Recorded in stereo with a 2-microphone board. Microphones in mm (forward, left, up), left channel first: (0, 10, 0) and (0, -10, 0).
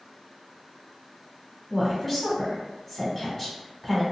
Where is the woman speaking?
5° left (ahead or behind), 1.4 m.